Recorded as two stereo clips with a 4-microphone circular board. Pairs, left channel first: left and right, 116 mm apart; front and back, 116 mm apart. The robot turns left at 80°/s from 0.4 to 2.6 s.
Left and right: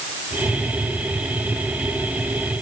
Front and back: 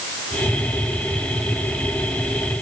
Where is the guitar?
No guitar in this recording.